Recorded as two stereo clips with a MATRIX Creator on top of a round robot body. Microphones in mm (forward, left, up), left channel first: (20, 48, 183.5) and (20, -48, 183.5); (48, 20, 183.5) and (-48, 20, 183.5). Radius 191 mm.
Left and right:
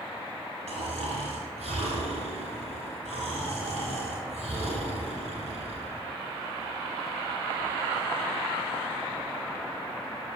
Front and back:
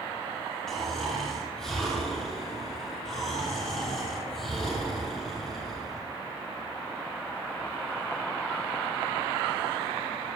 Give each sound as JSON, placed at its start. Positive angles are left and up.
{"t": 0.7, "sound": "snoring", "azimuth_deg": -85, "distance_m": 3.0}